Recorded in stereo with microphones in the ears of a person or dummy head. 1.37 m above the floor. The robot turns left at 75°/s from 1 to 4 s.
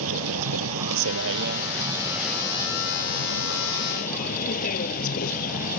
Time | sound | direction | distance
0.0 | a vehicle | 80° right | ?